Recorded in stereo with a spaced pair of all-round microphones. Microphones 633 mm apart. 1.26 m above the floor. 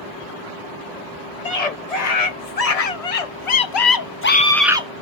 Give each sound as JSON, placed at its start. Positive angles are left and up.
{"t": 1.4, "sound": "a scream", "side_deg": 70, "distance_m": 1.5}